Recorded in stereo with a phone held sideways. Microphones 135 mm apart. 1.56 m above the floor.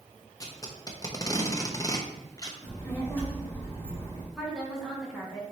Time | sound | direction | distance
0.4 | tape being pulled | 25° left (ahead or behind) | 0.7 m
2.6 | a child speaking | 15° left (ahead or behind) | 1.8 m
4.3 | a woman speaking | 5° right (ahead or behind) | 1.8 m